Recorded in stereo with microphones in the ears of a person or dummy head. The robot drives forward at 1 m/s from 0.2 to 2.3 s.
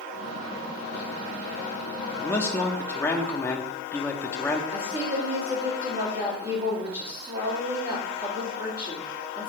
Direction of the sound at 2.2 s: 10° left (ahead or behind).